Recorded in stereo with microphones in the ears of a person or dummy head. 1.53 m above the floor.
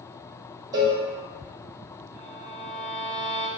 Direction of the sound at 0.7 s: 25° right (ahead or behind).